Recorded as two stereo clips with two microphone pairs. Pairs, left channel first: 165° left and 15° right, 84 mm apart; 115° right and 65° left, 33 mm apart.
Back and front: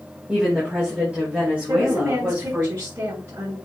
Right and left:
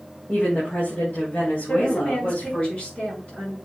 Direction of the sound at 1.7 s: 75° right.